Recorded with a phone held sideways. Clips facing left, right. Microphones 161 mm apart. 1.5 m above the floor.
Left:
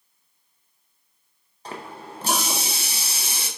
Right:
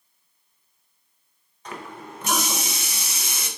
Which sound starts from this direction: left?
A running tap, at 1.6 s.